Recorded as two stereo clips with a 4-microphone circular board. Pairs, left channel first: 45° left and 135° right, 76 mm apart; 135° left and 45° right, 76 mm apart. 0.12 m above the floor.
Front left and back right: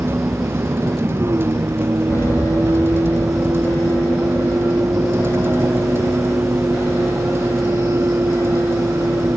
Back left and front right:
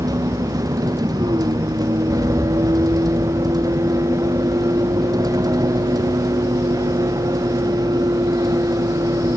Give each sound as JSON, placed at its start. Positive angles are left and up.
{"t": 0.0, "sound": "a vehicle", "azimuth_deg": -80}
{"t": 2.1, "sound": "an alarm", "azimuth_deg": -5}